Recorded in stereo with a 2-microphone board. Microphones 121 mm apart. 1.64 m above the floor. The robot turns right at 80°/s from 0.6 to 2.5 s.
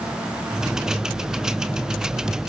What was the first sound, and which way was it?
Only background noise.